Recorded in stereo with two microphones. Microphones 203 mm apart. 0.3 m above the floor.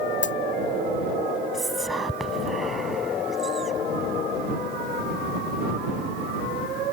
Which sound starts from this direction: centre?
Whispering, at 1.5 s.